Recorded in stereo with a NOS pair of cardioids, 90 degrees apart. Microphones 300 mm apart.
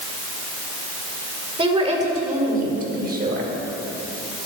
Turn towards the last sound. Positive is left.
turn(degrees=-35)